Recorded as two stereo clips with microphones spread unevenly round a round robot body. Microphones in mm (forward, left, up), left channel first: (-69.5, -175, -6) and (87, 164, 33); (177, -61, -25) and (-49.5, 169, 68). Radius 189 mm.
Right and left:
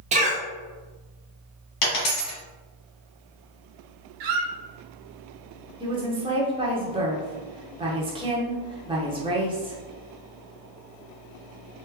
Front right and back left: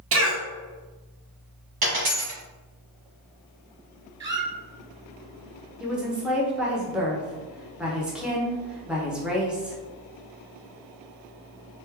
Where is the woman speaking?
Straight ahead, 0.8 m.